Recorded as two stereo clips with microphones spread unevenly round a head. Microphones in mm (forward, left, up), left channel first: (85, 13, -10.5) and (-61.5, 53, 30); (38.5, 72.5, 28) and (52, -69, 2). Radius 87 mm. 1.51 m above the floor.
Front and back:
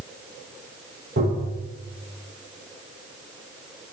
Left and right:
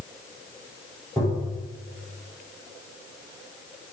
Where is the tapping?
Straight behind, 4 m.